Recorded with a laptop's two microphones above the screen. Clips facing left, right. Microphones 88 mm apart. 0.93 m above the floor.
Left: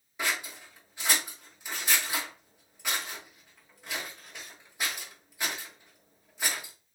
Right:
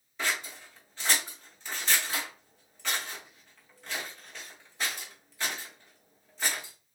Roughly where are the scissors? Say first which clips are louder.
Even; centre.